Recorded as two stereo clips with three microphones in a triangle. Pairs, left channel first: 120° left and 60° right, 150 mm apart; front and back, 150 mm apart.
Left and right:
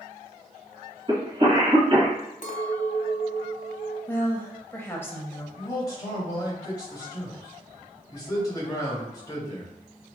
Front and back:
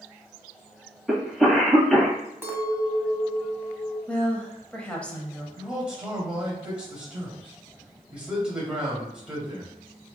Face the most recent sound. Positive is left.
turn(degrees=105)